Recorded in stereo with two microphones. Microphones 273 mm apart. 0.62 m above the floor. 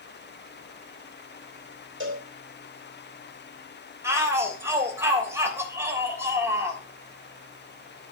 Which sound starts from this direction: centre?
A shout, at 4.0 s.